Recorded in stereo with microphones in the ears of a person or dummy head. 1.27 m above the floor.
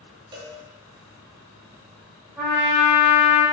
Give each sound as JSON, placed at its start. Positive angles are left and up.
{"t": 0.3, "sound": "a cowbell", "side_deg": -25, "distance_m": 0.7}
{"t": 2.4, "sound": "a trumpet", "side_deg": -10, "distance_m": 1.7}